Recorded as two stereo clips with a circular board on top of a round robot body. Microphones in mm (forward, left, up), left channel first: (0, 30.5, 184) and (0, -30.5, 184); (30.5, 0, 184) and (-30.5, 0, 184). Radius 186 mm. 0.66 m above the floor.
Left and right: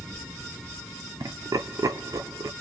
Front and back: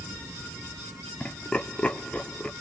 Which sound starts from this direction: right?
Laughter, at 1.2 s.